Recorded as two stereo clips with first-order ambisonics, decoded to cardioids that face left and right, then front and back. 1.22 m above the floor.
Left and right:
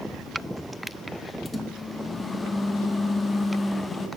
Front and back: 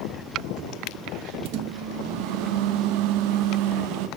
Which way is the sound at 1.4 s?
170° left.